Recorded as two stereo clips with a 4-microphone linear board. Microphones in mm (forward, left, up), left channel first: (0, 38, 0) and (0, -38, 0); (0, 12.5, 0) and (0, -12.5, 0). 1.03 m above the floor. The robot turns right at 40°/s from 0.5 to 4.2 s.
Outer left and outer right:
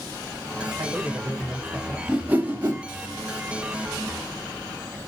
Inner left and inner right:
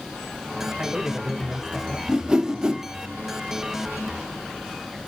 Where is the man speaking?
50° right, 1.5 m; by 2.0 s 5° right, 1.5 m.